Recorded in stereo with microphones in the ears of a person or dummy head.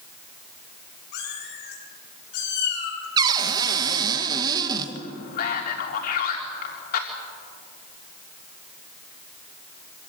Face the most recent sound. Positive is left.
turn(degrees=55)  # may be behind; listen again after turning